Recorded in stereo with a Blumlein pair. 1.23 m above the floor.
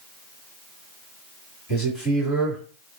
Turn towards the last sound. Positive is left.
turn(degrees=20)